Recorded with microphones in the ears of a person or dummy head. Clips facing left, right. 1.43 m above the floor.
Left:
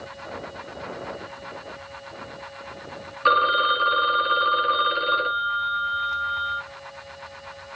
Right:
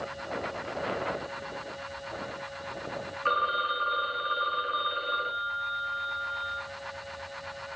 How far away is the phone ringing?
About 0.9 m.